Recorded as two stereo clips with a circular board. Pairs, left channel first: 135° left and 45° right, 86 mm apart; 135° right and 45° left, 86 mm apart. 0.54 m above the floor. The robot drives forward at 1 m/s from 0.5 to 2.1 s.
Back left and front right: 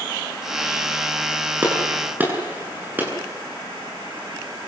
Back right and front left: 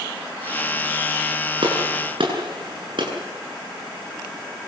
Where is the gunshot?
25° left, 8.5 m.